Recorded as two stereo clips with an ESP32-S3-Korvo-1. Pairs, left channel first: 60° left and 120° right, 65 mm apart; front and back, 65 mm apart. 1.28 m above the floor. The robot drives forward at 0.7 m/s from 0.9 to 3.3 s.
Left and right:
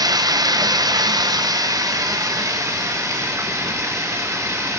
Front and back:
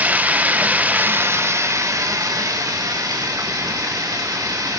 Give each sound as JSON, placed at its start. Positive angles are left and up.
{"t": 0.0, "sound": "running water", "azimuth_deg": -115, "distance_m": 0.9}